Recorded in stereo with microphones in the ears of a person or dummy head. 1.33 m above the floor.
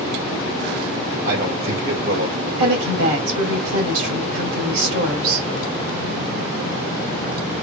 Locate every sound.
1.2 s a man speaking: 75° right (ahead or behind), 2 m
2.6 s a woman speaking: 75° right (ahead or behind), 2.5 m